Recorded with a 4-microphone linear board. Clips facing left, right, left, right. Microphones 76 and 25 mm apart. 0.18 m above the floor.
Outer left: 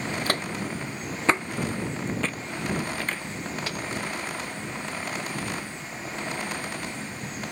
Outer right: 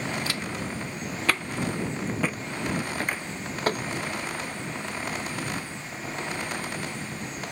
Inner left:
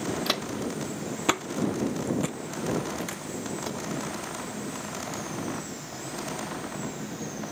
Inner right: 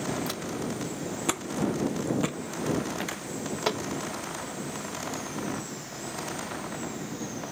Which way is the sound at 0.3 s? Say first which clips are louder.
Outer left 3 dB, inner left 3 dB; 50° left (ahead or behind).